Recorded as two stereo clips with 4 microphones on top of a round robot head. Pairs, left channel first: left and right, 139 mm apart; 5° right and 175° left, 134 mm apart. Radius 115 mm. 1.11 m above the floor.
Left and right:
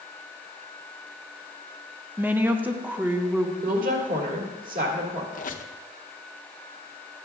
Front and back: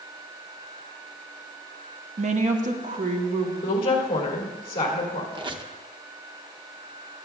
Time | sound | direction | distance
2.2 | a woman speaking | 165° right | 0.8 m
3.6 | a woman speaking | 65° right | 1.9 m
5.3 | a squeak | 115° left | 0.8 m